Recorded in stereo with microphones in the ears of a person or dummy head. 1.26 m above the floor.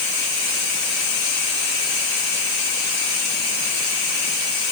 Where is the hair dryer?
I don't hear a hair dryer.